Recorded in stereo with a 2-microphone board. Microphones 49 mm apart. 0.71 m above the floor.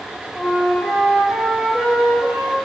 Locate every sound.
0.3 s a flute: 20° left (ahead or behind), 2 m